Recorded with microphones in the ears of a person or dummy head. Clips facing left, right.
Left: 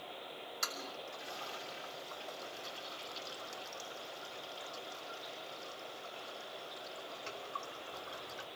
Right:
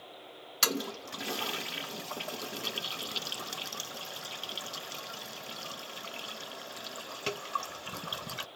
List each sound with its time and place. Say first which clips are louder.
0.6 s a toilet flushing: right 14 dB; 70° right (ahead or behind), 0.5 m